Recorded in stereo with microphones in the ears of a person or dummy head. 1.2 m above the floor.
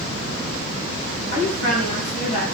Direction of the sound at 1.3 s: 40° left (ahead or behind).